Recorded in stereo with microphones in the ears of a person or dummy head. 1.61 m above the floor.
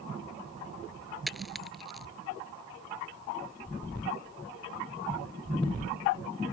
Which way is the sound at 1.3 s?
Centre (ahead or behind).